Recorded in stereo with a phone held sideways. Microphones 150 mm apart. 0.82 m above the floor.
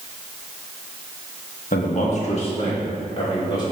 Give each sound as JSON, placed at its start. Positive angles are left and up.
{"t": 1.7, "sound": "a man speaking", "side_deg": 60, "distance_m": 1.0}